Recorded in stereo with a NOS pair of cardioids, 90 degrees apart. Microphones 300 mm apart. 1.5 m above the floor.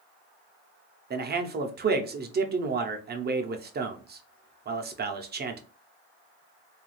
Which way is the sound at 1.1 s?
35° right.